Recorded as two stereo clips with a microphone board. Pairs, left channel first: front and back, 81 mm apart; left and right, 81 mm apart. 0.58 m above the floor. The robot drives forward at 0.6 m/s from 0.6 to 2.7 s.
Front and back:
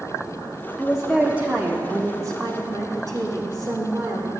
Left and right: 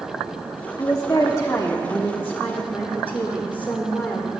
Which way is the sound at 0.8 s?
80° left.